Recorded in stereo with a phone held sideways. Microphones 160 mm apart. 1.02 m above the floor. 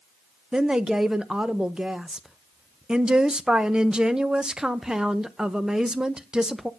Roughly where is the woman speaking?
Centre.